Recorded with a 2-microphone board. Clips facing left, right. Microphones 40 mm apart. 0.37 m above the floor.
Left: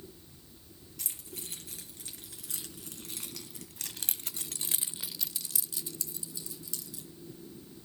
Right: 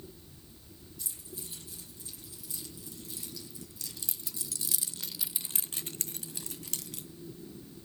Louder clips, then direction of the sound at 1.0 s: Left 2 dB; 80° left.